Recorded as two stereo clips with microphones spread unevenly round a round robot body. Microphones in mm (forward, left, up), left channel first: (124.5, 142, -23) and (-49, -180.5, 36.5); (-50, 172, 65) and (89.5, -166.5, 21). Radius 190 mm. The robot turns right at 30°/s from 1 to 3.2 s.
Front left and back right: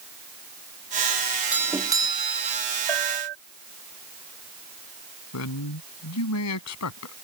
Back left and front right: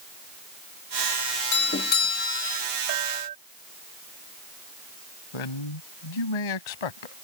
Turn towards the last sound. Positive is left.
turn(degrees=110)